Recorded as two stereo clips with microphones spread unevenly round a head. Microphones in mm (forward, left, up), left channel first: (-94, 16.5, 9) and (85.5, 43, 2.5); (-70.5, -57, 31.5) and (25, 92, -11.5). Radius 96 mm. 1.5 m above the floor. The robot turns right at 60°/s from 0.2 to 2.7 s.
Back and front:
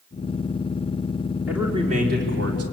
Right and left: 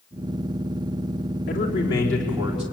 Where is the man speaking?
80° right, 3.5 m; by 2.6 s 10° right, 3.5 m.